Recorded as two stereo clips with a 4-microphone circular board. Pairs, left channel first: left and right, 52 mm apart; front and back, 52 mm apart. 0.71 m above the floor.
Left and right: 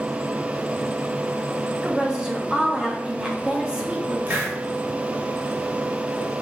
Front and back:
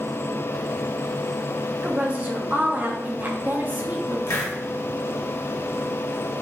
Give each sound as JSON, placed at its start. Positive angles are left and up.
{"t": 1.8, "sound": "a woman speaking", "azimuth_deg": -155, "distance_m": 0.8}
{"t": 4.3, "sound": "a hiss", "azimuth_deg": -30, "distance_m": 1.2}